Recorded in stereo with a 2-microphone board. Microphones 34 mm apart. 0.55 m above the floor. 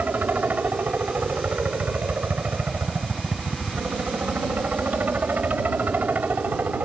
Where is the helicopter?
60° right (ahead or behind).